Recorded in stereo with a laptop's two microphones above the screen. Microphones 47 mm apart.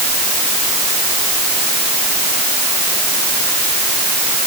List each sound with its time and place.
Only background noise.